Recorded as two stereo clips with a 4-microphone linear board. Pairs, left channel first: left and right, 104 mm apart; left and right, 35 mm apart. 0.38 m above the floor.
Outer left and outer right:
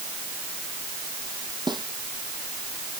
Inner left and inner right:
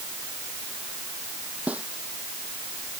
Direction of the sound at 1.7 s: 45° right (ahead or behind).